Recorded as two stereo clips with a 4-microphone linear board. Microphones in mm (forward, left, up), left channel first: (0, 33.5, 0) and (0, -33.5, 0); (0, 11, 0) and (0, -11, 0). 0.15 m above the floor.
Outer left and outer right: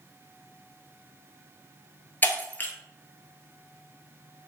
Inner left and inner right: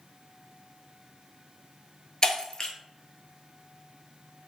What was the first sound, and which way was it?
Breaking glass, 30° left (ahead or behind).